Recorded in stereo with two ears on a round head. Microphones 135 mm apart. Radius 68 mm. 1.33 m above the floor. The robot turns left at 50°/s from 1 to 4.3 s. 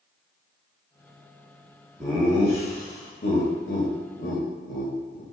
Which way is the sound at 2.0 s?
5° right (ahead or behind).